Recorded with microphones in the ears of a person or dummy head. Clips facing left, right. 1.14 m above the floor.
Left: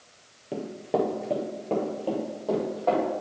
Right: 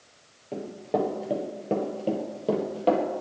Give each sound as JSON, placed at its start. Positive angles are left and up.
{"t": 0.5, "sound": "running footsteps", "side_deg": 15, "distance_m": 1.3}